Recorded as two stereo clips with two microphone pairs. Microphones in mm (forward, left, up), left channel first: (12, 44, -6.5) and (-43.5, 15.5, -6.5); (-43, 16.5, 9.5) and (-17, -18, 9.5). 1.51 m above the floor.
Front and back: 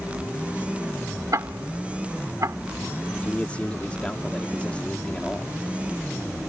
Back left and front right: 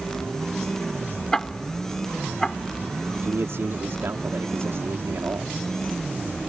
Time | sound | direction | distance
1.3 | ticking | 160° right | ?
3.2 | a man speaking | 45° right | ?